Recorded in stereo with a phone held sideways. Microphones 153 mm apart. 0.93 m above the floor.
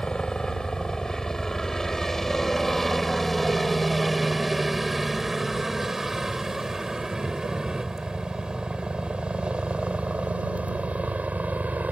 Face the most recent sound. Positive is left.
turn(degrees=-10)  # may be behind; listen again after turning